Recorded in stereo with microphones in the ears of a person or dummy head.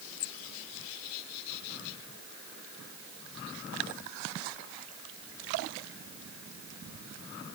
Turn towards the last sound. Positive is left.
No sound to turn to.